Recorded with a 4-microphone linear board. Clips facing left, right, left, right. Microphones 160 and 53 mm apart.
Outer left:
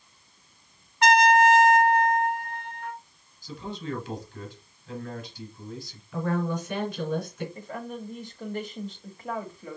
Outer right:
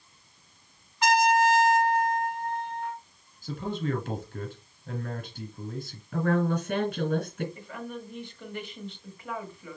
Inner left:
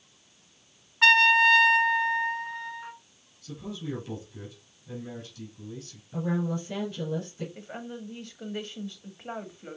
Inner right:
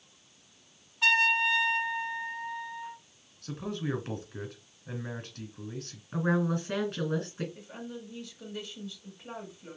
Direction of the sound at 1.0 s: 60° left (ahead or behind).